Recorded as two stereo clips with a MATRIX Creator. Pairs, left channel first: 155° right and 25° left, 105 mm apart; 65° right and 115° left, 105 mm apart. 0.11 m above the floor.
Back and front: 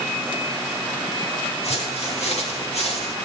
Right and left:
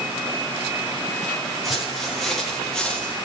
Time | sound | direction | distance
1.6 | footsteps | 160° right | 5.5 m